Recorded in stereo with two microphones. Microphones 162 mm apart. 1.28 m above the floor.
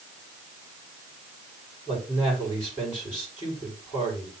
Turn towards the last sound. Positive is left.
turn(degrees=30)  # may be behind; listen again after turning